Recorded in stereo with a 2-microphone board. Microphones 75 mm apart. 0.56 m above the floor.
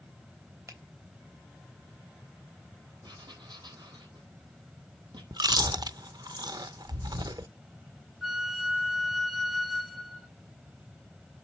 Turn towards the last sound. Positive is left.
turn(degrees=0)  # may be behind; listen again after turning